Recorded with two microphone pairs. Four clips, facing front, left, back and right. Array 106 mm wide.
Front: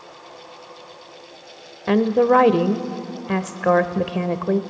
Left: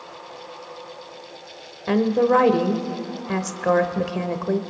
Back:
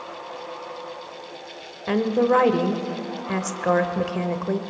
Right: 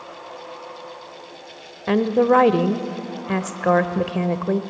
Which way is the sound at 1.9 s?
20° right.